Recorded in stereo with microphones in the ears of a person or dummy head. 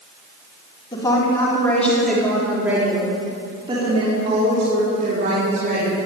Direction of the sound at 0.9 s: 25° left (ahead or behind).